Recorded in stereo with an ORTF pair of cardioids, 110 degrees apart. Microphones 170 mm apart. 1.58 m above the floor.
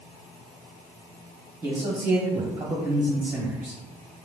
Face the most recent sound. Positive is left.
turn(degrees=-15)